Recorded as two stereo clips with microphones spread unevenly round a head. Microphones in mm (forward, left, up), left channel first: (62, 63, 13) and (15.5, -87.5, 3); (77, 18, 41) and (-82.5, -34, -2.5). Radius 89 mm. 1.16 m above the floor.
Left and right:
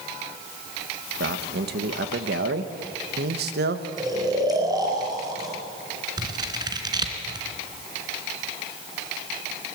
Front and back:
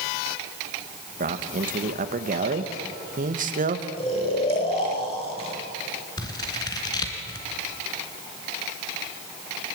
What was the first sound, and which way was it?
A man speaking, 130° right.